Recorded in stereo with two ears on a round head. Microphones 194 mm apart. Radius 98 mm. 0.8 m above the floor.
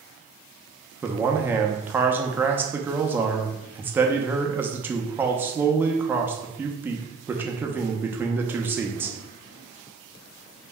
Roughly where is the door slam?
No door slam in this recording.